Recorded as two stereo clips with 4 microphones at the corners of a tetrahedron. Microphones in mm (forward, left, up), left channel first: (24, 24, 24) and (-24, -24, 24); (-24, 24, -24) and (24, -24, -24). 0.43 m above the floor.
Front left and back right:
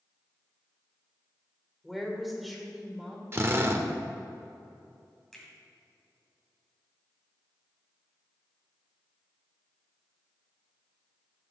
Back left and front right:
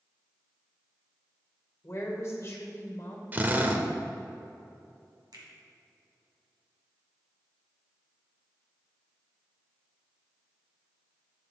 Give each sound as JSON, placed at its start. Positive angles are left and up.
{"t": 1.8, "sound": "a woman speaking", "azimuth_deg": 135, "distance_m": 1.8}
{"t": 3.3, "sound": "a drill", "azimuth_deg": -95, "distance_m": 0.8}
{"t": 5.3, "sound": "a finger snap", "azimuth_deg": -40, "distance_m": 2.0}